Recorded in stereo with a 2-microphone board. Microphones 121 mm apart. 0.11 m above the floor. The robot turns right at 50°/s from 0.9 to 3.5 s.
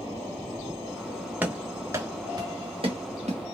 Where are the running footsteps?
15° right (ahead or behind), 0.9 m; by 3.5 s 75° right (ahead or behind), 1.7 m.